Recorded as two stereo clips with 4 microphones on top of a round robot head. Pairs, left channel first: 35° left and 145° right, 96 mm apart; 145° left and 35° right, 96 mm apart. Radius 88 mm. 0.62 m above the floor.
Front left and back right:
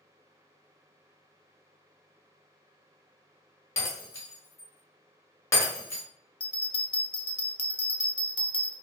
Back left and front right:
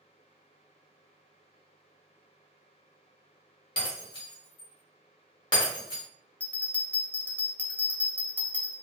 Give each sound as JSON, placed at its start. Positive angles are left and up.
{"t": 3.8, "sound": "breaking glass", "azimuth_deg": 100, "distance_m": 1.0}
{"t": 6.4, "sound": "a bell", "azimuth_deg": 70, "distance_m": 0.6}